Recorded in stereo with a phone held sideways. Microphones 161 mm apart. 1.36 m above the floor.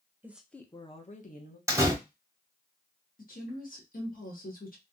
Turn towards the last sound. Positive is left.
turn(degrees=60)  # may be behind; listen again after turning